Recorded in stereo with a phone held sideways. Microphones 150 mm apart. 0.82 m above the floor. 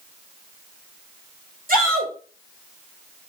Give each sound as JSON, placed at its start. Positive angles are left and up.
{"t": 1.7, "sound": "a shout", "side_deg": -70, "distance_m": 3.5}